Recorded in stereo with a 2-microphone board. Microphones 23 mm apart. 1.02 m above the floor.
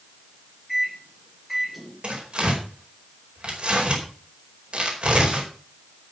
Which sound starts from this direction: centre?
A microwave, at 0.7 s.